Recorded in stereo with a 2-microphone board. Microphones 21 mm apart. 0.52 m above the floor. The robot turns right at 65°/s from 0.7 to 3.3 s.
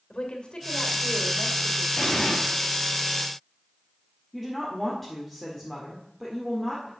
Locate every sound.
0.1 s a woman speaking: 75° left, 2.5 m; by 1.9 s 150° left, 2.5 m
2.0 s an explosion: 50° left (ahead or behind), 3 m; by 2.4 s 75° left (ahead or behind), 3 m
4.3 s a woman speaking: 15° left (ahead or behind), 1.8 m